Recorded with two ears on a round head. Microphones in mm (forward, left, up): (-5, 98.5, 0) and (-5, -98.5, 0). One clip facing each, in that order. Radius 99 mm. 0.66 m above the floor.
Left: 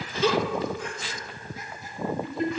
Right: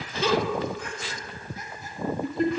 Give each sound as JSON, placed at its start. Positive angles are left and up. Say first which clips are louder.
{"t": 0.2, "sound": "a giggle", "louder": "even", "side_deg": -40, "distance_m": 2.0}